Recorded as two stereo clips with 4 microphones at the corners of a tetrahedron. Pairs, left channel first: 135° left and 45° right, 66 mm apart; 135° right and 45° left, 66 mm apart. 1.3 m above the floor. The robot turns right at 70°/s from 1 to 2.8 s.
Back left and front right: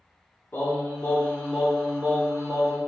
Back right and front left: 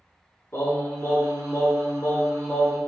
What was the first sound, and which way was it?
Singing, 175° right.